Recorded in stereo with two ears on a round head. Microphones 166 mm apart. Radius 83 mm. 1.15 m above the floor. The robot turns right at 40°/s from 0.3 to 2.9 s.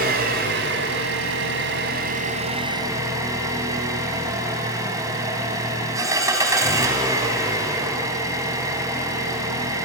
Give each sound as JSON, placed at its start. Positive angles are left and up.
{"t": 0.0, "sound": "an engine running", "azimuth_deg": -120, "distance_m": 3.5}